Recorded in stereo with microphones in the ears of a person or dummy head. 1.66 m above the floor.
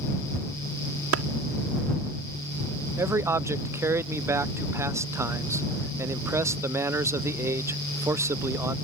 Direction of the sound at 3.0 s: 10° right (ahead or behind).